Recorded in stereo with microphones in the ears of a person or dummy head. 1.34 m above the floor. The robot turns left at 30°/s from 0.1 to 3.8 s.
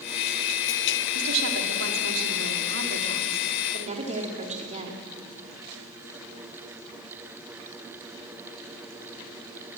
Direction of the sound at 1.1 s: 65° right.